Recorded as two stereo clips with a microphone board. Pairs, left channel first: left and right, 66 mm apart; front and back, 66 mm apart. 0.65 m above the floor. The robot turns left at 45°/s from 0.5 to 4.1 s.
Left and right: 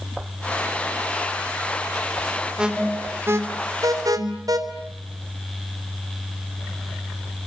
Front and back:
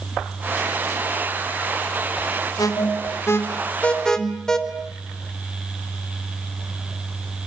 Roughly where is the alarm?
Ahead.